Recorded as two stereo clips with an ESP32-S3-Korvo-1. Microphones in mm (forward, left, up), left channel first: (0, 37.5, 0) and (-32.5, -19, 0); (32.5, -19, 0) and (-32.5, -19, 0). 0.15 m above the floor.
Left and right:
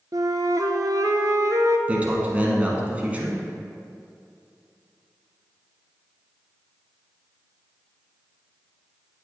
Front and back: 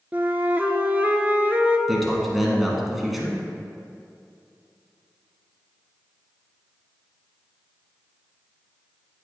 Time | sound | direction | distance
0.1 | a flute | 115° right | 0.6 m
1.9 | a man speaking | 95° right | 1.3 m